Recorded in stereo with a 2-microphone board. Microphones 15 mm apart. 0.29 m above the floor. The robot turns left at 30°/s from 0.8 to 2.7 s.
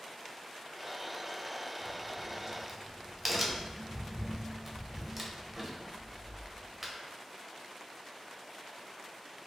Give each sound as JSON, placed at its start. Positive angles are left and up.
{"t": 1.8, "sound": "a crack", "side_deg": -20, "distance_m": 0.5}